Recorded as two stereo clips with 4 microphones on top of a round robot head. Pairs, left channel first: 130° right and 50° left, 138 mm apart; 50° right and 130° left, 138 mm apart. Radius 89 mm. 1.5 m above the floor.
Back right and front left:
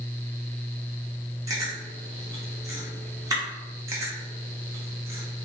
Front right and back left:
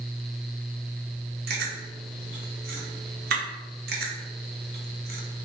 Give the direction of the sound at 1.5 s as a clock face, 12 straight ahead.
8 o'clock.